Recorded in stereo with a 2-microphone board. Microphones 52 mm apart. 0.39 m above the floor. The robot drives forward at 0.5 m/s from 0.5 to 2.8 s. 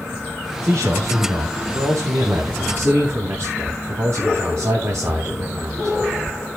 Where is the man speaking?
65° right (ahead or behind), 3 m; by 6.0 s 55° right (ahead or behind), 3.5 m.